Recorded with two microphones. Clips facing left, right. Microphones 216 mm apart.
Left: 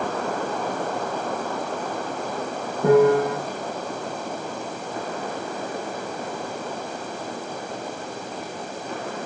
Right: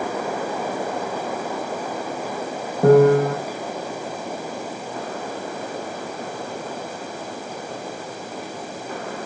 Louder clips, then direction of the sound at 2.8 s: Right 3 dB; 60° right (ahead or behind).